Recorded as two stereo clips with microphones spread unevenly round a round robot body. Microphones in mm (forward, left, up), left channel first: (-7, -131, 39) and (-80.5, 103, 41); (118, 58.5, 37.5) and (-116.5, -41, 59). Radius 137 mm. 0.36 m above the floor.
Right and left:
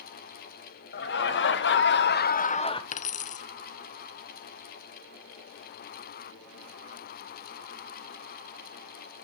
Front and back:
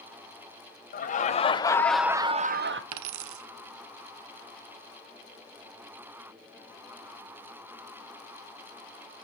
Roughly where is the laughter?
Ahead right.